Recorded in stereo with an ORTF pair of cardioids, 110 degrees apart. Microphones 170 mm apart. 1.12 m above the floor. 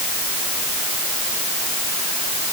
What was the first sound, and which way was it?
Only background noise.